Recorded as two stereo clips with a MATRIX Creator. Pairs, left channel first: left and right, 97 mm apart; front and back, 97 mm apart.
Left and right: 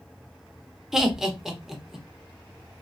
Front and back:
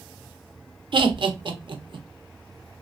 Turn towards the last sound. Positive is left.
turn(degrees=-175)